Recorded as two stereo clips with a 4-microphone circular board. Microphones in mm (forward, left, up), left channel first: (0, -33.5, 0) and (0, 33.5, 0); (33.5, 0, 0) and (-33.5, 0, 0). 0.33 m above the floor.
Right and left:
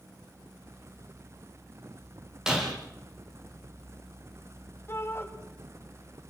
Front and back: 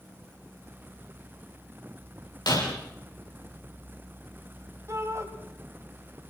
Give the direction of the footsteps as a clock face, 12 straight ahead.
I don't hear footsteps.